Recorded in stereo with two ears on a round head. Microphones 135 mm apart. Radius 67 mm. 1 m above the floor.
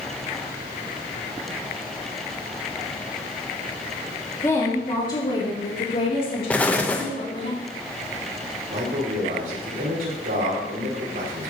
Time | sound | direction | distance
4.4 | a woman speaking | 15° left (ahead or behind) | 1.7 m
6.5 | an explosion | 10° left (ahead or behind) | 0.7 m
8.7 | a man speaking | 60° right (ahead or behind) | 3.5 m